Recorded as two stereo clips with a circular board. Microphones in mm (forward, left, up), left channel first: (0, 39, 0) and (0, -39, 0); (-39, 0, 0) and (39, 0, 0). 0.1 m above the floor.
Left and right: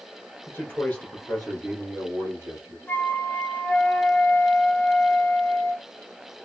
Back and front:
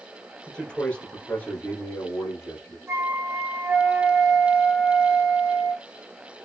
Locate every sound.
0.5 s a man speaking: 105° left, 1.5 m; by 2.8 s 135° right, 1.9 m
2.9 s a flute: 45° left, 1.1 m